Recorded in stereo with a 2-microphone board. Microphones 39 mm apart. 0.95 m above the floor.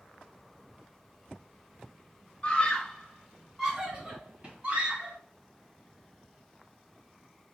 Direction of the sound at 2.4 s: 30° left (ahead or behind).